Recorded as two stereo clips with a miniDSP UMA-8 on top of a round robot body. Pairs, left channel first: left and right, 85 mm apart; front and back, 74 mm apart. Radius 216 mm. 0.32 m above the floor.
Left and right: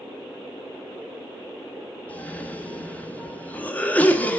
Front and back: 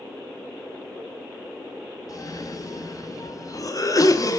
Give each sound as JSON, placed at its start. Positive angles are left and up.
{"t": 2.1, "sound": "a cough", "azimuth_deg": 20, "distance_m": 1.1}